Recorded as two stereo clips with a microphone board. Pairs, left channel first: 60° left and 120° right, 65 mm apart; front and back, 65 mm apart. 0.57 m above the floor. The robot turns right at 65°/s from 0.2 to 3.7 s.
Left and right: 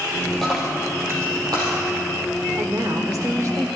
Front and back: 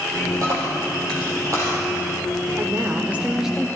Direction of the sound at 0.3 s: 140° left.